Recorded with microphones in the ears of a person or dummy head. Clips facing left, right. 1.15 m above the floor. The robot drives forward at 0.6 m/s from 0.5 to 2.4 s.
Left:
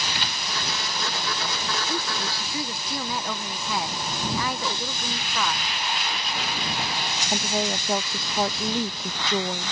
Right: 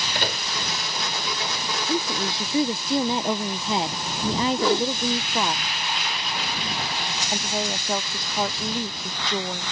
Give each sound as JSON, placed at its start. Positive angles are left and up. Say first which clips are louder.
{"t": 0.1, "sound": "a microwave", "louder": "right 5 dB", "side_deg": -45}
{"t": 1.9, "sound": "a woman speaking", "louder": "right 4 dB", "side_deg": -15}
{"t": 4.5, "sound": "a whoosh", "louder": "right 10 dB", "side_deg": -60}
{"t": 7.3, "sound": "a woman speaking", "louder": "left 2 dB", "side_deg": 5}